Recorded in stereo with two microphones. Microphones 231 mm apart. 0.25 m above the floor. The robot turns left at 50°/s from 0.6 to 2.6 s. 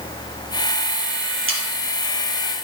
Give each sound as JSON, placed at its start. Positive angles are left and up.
{"t": 1.5, "sound": "sawing", "side_deg": -65, "distance_m": 3.0}